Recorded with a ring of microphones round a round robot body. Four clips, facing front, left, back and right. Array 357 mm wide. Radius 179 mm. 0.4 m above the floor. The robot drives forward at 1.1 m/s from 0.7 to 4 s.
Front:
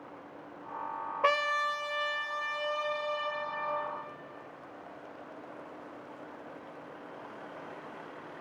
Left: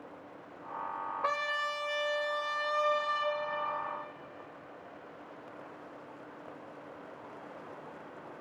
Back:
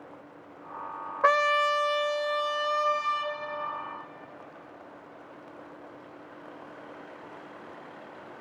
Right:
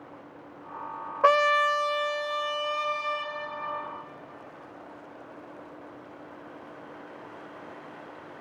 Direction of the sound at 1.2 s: 100° right.